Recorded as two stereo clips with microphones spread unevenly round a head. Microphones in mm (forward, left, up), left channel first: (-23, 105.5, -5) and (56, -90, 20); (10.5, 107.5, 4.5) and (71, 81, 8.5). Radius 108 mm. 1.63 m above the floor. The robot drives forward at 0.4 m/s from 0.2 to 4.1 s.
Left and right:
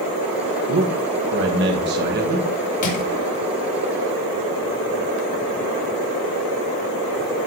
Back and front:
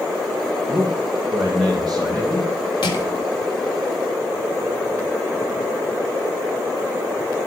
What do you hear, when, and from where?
0.7 s a man speaking: 100° right, 1.7 m; by 2.4 s 120° right, 2.0 m
2.8 s crushing: 170° left, 3 m